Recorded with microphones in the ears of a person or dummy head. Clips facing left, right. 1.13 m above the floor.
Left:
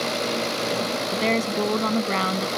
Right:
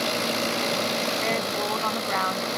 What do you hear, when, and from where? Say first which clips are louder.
1.1 s a woman speaking: left 4 dB; 45° left (ahead or behind)